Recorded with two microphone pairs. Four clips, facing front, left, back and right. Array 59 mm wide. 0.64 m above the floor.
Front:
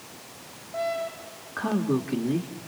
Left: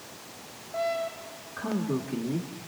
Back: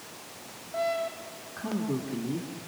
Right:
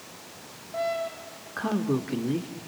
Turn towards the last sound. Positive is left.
turn(degrees=-40)